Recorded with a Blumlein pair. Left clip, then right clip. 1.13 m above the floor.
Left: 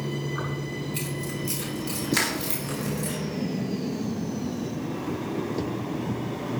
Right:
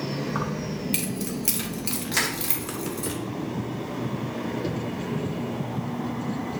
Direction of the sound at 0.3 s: 55° right.